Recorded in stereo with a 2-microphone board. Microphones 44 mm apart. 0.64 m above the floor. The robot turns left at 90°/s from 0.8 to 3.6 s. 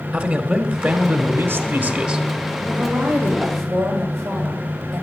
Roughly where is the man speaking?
Ahead right.